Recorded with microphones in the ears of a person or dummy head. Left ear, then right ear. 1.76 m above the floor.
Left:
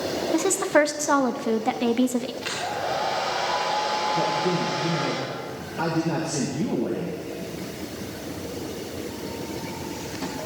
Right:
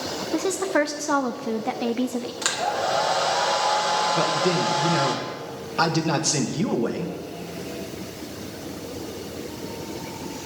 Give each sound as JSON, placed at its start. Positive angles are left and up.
{"t": 0.3, "sound": "a woman speaking", "side_deg": 5, "distance_m": 0.5}
{"t": 2.4, "sound": "a hair dryer", "side_deg": -60, "distance_m": 1.6}
{"t": 4.2, "sound": "a man speaking", "side_deg": -60, "distance_m": 1.2}